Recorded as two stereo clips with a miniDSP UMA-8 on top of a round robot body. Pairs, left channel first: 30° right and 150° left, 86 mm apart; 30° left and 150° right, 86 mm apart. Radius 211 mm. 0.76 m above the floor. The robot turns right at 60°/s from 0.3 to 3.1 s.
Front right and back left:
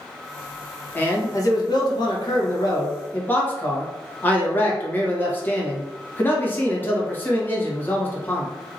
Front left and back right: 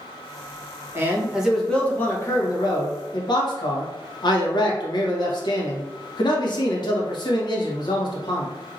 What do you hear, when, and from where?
0.9 s a man speaking: 95° right, 1.2 m; by 8.5 s 35° left, 1.2 m